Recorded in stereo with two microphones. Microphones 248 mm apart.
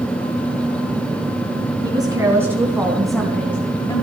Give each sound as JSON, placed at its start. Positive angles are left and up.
{"t": 1.8, "sound": "a woman speaking", "side_deg": -15, "distance_m": 3.5}